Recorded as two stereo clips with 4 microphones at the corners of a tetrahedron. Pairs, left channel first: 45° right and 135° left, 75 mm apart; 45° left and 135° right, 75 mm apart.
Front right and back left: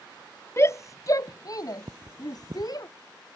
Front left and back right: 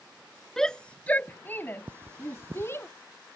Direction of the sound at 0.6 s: 35° right.